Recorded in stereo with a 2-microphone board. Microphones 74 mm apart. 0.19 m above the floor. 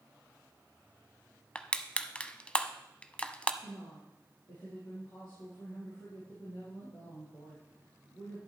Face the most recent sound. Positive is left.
turn(degrees=65)  # may be behind; listen again after turning